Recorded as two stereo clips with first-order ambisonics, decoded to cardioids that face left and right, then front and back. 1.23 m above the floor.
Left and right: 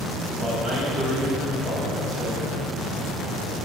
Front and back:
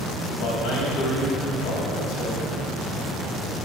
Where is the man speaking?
25° right, 3.5 m.